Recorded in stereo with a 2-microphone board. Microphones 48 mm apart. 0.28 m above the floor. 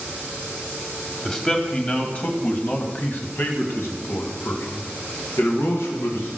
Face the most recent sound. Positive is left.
turn(degrees=65)  # may be behind; listen again after turning